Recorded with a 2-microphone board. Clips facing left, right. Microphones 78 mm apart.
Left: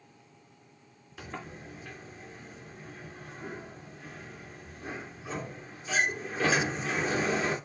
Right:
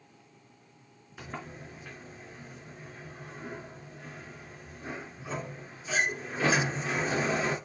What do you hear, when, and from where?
1.2 s a sliding door: 10° right (ahead or behind), 3 m